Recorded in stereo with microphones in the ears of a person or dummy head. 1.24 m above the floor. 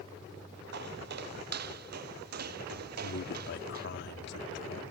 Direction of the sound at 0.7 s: 60° right (ahead or behind).